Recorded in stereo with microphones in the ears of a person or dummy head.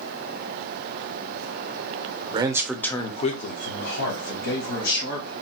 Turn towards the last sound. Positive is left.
turn(degrees=70)  # may be behind; listen again after turning